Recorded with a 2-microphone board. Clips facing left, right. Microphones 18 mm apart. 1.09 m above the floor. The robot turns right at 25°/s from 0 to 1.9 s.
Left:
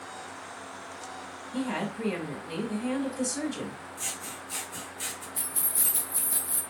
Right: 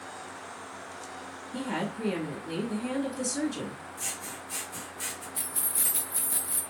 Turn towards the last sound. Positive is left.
turn(degrees=-15)  # may be behind; listen again after turning